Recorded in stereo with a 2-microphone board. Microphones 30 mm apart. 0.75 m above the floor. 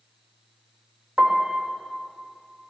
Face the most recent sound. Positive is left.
turn(degrees=-50)  # may be behind; listen again after turning